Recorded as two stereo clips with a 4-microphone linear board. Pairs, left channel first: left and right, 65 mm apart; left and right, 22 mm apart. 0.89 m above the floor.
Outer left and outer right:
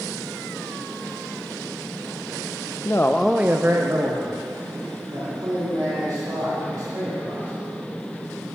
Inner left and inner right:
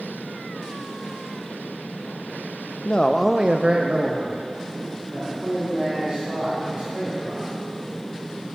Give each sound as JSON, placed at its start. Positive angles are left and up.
{"t": 2.9, "sound": "a man speaking", "side_deg": 45, "distance_m": 0.6}